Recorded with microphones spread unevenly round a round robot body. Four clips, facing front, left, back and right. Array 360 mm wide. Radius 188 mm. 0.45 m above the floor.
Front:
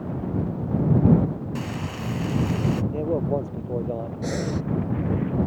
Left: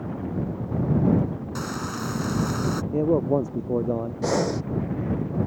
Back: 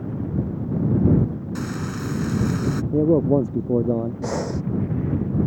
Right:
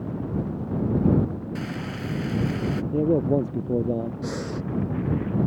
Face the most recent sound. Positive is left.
turn(degrees=80)